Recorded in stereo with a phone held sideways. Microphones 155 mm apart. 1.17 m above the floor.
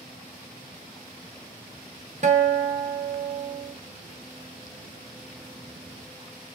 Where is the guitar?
50° right (ahead or behind), 0.5 m.